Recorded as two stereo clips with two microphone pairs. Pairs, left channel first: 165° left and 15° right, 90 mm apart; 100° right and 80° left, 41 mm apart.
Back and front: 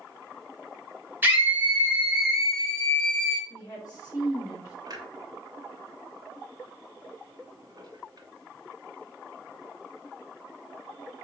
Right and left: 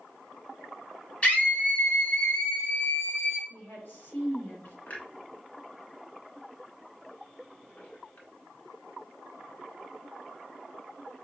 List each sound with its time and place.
1.2 s a scream: 65° right, 1.4 m; by 3.4 s 115° right, 2 m
3.5 s a woman speaking: 150° right, 2.5 m
4.9 s a clunk: 55° right, 0.8 m